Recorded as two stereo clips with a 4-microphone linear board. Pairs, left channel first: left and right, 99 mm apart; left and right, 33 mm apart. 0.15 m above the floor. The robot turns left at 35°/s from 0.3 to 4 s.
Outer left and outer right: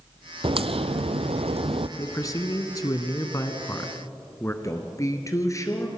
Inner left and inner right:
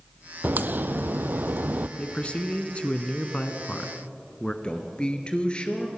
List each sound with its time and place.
0.4 s a crack: 60° right, 0.8 m; by 1.9 s 110° right, 0.8 m
2.0 s a man speaking: 110° left, 1.4 m; by 4.5 s 40° left, 1.4 m
4.6 s a man speaking: 30° left (ahead or behind), 2.5 m